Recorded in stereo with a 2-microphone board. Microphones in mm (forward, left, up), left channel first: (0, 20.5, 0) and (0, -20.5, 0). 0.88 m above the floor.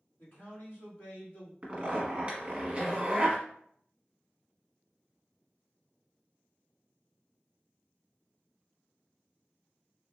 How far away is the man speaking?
About 1.7 m.